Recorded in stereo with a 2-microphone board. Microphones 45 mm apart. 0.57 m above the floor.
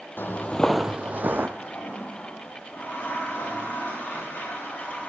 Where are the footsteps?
50° left (ahead or behind), 0.9 m; by 1.5 s 45° right (ahead or behind), 1.2 m.